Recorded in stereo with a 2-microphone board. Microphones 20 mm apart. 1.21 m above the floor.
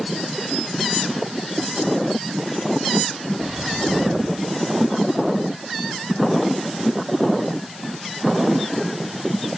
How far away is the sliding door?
About 4 m.